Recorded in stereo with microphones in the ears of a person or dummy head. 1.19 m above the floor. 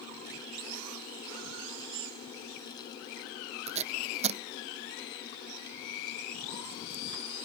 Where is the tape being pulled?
30° right (ahead or behind).